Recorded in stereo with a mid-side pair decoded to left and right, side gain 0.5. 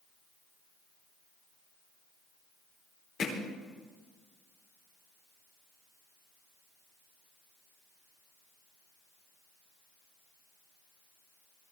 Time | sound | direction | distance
3.2 | hammering | 55° left | 4.5 m